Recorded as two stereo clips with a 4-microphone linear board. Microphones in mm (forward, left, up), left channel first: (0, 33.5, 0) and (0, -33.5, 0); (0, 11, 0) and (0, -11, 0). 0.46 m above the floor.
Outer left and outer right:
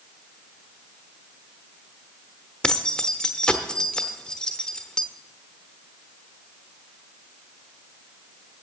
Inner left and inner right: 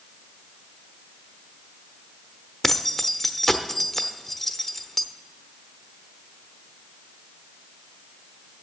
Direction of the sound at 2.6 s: 15° left (ahead or behind).